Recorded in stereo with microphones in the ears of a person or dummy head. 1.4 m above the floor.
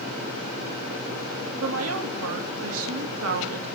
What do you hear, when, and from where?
1.6 s a woman speaking: 85° right, 1.9 m